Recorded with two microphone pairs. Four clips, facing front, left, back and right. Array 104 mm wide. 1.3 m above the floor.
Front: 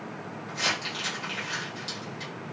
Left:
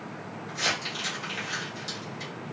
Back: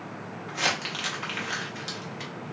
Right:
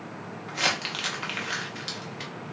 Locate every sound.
0.5 s crumpling: 125° right, 0.9 m